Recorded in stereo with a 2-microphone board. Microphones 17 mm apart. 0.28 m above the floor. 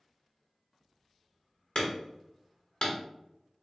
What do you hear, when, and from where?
1.8 s hammering: 55° left (ahead or behind), 1.3 m